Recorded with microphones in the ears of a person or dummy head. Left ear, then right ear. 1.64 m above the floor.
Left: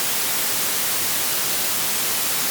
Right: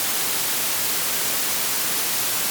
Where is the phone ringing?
No phone ringing in this recording.